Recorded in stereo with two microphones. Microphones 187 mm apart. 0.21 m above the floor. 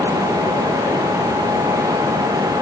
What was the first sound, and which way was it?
Only background noise.